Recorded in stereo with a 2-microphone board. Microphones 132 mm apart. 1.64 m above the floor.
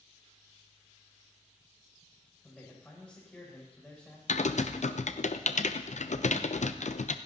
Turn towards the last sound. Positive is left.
turn(degrees=70)  # may be behind; listen again after turning